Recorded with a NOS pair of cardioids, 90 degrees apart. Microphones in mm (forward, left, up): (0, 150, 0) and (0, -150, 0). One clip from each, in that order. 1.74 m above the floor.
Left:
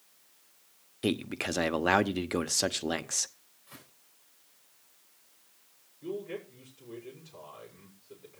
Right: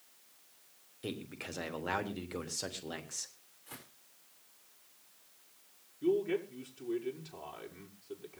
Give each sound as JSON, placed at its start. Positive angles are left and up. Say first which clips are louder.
{"t": 1.0, "sound": "a man speaking", "louder": "left 11 dB", "azimuth_deg": 60, "distance_m": 1.1}
{"t": 3.7, "sound": "footsteps", "louder": "right 1 dB", "azimuth_deg": -65, "distance_m": 8.0}
{"t": 6.0, "sound": "a man speaking", "louder": "right 6 dB", "azimuth_deg": -60, "distance_m": 5.5}